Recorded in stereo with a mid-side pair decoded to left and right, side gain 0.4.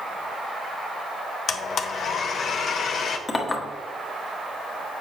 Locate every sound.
1.5 s a blender: 65° left, 0.7 m
3.3 s a clink: 35° left, 1.2 m